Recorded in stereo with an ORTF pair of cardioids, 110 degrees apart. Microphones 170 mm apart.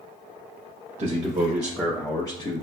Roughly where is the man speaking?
Ahead right.